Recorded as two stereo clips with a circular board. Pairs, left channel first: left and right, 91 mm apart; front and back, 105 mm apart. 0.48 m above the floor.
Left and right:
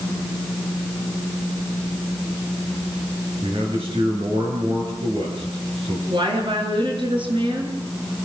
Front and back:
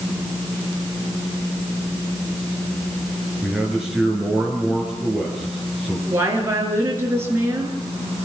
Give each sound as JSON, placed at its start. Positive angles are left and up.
{"t": 3.4, "sound": "a man speaking", "azimuth_deg": -95, "distance_m": 8.0}
{"t": 6.1, "sound": "a woman speaking", "azimuth_deg": -115, "distance_m": 6.5}